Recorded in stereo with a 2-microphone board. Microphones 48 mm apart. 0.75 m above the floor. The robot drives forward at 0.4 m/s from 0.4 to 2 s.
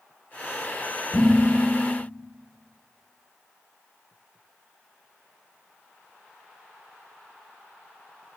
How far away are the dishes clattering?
About 2.5 m.